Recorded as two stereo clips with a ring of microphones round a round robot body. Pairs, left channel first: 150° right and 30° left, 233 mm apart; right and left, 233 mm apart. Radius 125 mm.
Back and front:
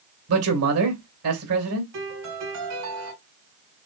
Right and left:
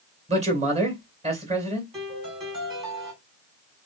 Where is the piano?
20° left, 3 m.